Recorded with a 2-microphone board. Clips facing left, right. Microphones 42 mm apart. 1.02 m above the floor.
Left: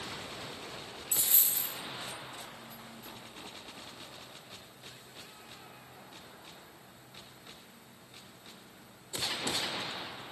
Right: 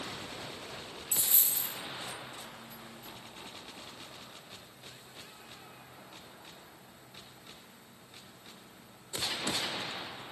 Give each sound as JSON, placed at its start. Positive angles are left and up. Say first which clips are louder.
{"t": 1.1, "sound": "a dropped coin", "louder": "even", "side_deg": 35, "distance_m": 0.6}